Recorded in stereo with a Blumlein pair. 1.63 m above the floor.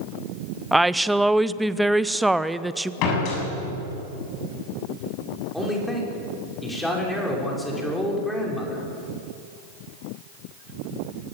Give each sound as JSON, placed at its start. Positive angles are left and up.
{"t": 0.7, "sound": "a woman speaking", "azimuth_deg": -5, "distance_m": 0.7}
{"t": 3.0, "sound": "a door slam", "azimuth_deg": 40, "distance_m": 7.5}
{"t": 5.5, "sound": "a man speaking", "azimuth_deg": 5, "distance_m": 6.0}